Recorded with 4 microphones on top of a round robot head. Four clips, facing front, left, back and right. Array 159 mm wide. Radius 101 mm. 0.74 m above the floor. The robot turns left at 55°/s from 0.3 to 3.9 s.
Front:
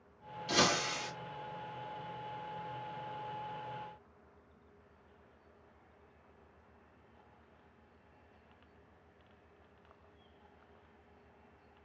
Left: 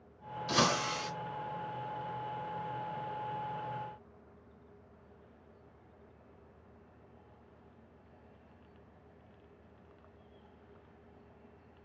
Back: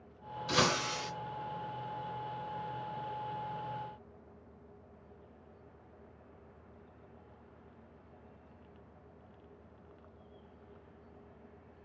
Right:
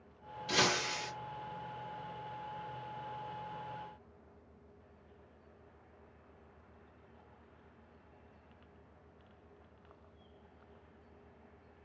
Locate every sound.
0.5 s breaking glass: 130° left, 1.2 m; by 1.1 s 95° left, 1.2 m